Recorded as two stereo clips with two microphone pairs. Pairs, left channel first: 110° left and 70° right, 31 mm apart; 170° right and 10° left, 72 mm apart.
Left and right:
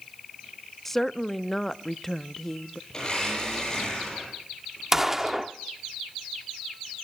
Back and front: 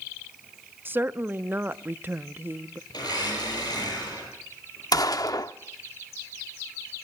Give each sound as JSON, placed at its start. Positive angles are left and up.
{"t": 0.8, "sound": "a woman speaking", "azimuth_deg": 40, "distance_m": 0.5}
{"t": 2.9, "sound": "a blender", "azimuth_deg": 180, "distance_m": 9.5}
{"t": 4.9, "sound": "a gunshot", "azimuth_deg": -145, "distance_m": 0.7}